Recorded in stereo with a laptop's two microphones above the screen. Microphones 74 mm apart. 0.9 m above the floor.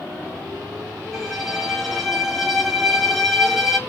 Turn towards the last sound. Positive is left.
turn(degrees=-5)  # may be behind; listen again after turning